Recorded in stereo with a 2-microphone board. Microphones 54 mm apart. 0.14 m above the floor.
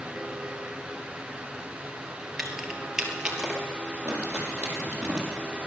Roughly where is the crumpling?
Right.